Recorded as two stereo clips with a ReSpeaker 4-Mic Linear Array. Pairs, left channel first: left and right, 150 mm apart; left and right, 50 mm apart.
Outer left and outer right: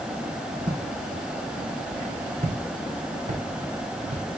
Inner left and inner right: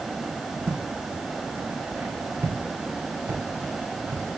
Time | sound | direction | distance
0.7 | footsteps | 55° right (ahead or behind) | 2.5 m